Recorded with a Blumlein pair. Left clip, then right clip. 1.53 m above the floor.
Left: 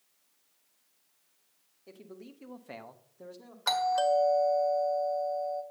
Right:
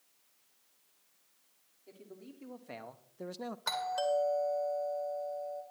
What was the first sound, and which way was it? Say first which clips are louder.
A man speaking: left 3 dB; 25° left.